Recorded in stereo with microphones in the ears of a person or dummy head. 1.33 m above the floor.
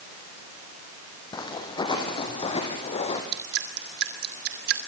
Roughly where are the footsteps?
Left.